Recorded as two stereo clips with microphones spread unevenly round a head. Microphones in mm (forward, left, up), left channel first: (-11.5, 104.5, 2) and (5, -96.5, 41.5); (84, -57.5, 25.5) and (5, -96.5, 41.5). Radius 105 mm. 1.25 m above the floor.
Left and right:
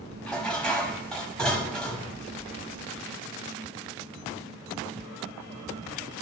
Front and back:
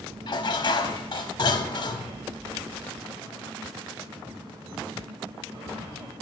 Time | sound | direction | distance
0.3 | dishes clattering | straight ahead | 0.7 m